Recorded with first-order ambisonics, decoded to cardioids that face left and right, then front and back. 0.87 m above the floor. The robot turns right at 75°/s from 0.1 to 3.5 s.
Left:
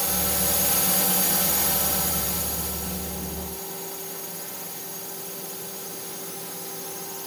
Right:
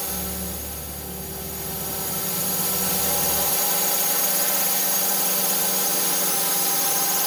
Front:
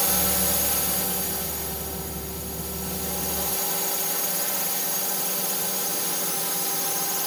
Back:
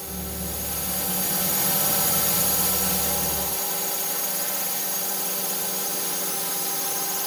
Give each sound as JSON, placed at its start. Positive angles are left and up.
{"t": 0.0, "sound": "a drone", "azimuth_deg": 15}